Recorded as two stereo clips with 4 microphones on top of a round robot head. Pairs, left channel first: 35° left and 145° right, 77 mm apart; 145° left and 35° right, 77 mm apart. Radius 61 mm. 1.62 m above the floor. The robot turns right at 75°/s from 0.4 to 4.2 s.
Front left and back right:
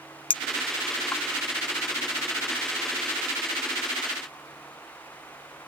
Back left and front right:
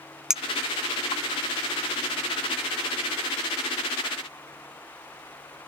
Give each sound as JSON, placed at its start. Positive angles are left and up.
{"t": 0.3, "sound": "a clink", "azimuth_deg": 45}